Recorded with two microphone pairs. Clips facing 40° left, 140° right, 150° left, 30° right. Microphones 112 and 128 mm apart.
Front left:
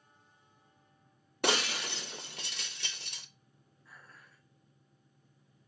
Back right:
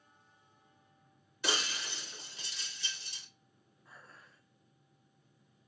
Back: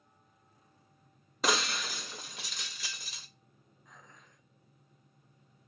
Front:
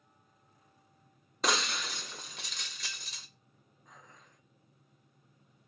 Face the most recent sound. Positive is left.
turn(degrees=-80)